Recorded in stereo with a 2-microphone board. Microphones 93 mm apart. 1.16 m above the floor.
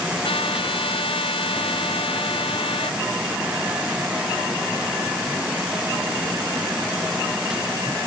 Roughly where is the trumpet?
Left.